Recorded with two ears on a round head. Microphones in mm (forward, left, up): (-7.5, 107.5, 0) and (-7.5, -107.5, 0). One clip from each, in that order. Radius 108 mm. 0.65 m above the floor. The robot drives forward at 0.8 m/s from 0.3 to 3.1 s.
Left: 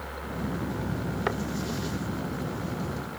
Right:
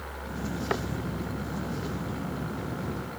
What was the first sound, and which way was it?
Only background noise.